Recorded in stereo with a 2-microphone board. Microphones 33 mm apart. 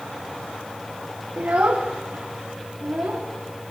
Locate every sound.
1.4 s a child speaking: 65° right (ahead or behind), 0.9 m; by 3.3 s 70° right (ahead or behind), 3 m